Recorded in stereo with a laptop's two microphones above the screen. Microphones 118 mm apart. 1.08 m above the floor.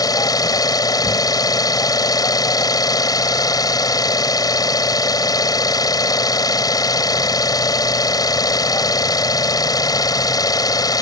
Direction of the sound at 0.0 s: 35° left (ahead or behind).